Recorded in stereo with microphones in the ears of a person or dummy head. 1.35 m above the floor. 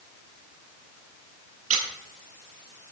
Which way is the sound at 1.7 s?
45° right (ahead or behind).